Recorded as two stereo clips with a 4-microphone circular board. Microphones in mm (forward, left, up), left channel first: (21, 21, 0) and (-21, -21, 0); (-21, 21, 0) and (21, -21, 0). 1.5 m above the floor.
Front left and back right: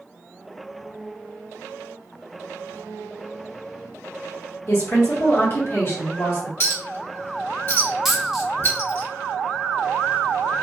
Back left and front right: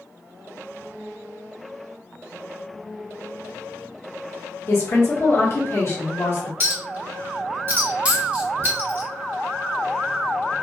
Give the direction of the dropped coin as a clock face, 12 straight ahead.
2 o'clock.